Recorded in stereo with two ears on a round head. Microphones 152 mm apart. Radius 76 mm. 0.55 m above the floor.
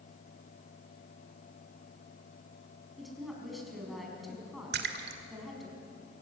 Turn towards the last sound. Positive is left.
turn(degrees=-65)  # may be behind; listen again after turning